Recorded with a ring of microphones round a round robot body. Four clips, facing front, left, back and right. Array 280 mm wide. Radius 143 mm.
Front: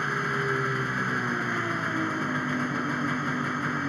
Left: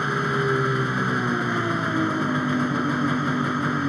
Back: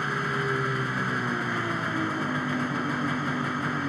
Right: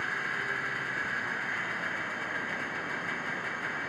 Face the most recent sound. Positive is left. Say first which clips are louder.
# left 11 dB, even
turn(degrees=90)